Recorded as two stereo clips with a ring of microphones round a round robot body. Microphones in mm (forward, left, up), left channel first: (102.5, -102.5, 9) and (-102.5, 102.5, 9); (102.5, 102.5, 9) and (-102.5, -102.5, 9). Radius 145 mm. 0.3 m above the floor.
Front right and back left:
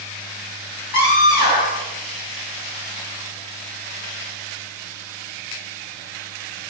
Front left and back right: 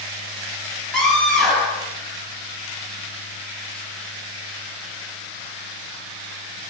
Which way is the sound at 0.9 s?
45° right.